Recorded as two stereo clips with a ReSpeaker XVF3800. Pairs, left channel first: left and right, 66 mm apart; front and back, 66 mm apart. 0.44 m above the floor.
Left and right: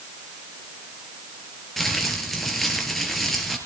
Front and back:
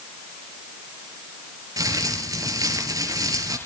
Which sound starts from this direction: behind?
Crumpling, at 1.8 s.